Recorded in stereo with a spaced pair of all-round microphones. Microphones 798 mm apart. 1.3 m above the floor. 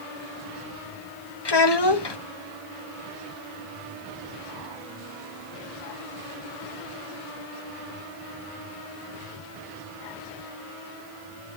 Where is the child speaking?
30° left (ahead or behind), 1.3 m.